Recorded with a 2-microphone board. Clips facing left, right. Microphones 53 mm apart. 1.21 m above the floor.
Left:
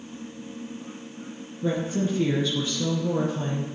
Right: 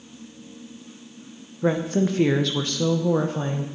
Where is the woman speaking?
55° right (ahead or behind), 1.1 m; by 3.7 s 45° right (ahead or behind), 1.1 m.